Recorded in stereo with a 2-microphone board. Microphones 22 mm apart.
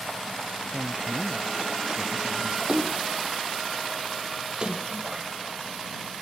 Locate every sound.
0.7 s a woman speaking: 55° right (ahead or behind)
2.7 s a splash: 35° right (ahead or behind)